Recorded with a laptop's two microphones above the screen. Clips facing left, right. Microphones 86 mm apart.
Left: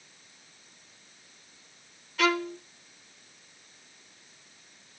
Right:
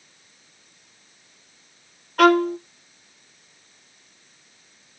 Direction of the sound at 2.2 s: 55° right (ahead or behind).